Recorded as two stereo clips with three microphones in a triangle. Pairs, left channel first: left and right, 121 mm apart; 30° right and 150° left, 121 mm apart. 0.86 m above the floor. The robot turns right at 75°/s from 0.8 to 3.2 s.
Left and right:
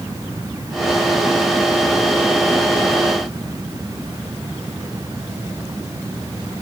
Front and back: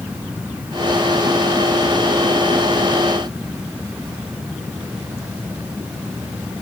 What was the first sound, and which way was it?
Only background noise.